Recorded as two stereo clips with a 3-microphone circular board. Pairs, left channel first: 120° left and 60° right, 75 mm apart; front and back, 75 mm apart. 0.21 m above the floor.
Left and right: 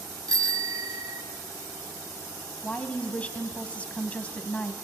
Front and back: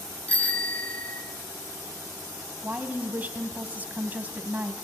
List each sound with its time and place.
0.3 s a bicycle bell: 65° right, 2 m
2.6 s a woman speaking: 160° left, 1.7 m